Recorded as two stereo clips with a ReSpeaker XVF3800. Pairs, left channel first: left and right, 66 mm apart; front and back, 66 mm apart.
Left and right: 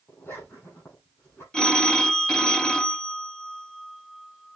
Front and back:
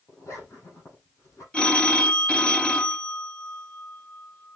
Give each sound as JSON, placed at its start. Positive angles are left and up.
{"t": 0.1, "sound": "a zipper", "azimuth_deg": 35, "distance_m": 7.0}
{"t": 1.5, "sound": "a phone ringing", "azimuth_deg": 40, "distance_m": 0.6}